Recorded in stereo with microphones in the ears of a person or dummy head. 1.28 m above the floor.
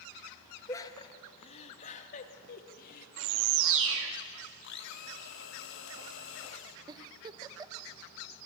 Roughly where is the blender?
Left.